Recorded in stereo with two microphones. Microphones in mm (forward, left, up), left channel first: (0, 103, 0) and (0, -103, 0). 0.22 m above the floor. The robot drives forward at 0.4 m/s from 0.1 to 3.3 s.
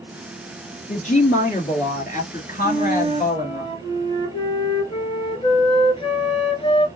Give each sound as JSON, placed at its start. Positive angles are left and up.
{"t": 0.9, "sound": "a woman speaking", "side_deg": 40, "distance_m": 3.0}
{"t": 2.6, "sound": "a flute", "side_deg": 25, "distance_m": 1.6}